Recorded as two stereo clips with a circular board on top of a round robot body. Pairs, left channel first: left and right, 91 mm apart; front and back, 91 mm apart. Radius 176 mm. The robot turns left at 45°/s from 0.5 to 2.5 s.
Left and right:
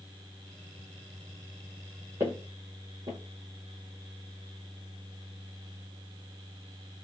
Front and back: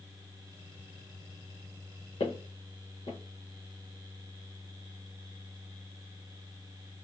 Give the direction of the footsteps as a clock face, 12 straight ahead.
1 o'clock.